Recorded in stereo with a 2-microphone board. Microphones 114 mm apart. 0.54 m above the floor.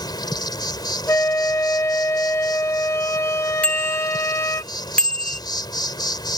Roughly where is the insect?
Left.